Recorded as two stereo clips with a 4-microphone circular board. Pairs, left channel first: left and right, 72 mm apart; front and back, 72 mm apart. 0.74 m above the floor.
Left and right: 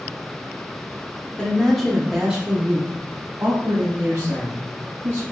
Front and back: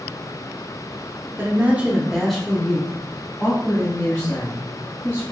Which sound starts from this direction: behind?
A woman speaking, at 1.4 s.